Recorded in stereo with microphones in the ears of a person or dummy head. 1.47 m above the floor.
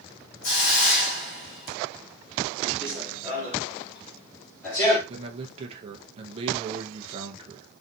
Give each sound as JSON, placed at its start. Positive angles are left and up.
{"t": 0.4, "sound": "a hiss", "side_deg": 50, "distance_m": 1.7}
{"t": 2.8, "sound": "running footsteps", "side_deg": -5, "distance_m": 1.6}
{"t": 5.1, "sound": "a man speaking", "side_deg": -35, "distance_m": 0.6}